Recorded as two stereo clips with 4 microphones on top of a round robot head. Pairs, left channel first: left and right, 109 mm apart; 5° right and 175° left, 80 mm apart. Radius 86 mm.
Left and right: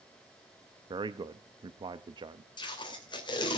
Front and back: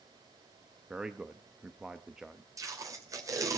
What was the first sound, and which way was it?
A man speaking, 105° right.